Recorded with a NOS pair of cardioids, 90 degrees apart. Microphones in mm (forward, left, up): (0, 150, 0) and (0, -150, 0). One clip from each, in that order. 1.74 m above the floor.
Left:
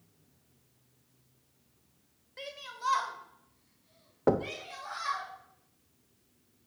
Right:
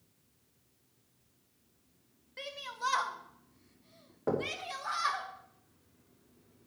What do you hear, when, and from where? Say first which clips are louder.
2.4 s a shout: right 1 dB; 15° right, 1.8 m; by 5.3 s 65° right, 2.5 m
4.3 s knocking: left 5 dB; 40° left, 1.0 m